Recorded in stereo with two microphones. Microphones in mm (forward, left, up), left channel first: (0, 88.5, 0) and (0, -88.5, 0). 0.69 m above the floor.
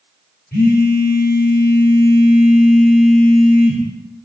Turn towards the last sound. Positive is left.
turn(degrees=60)  # may be behind; listen again after turning